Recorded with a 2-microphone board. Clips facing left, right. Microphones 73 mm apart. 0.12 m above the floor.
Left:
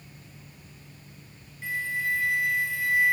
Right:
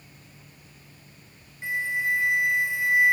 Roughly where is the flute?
Right.